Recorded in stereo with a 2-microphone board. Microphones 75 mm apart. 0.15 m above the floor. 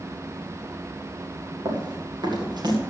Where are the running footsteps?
75° right (ahead or behind), 5.5 m; by 2.8 s 65° right (ahead or behind), 6 m.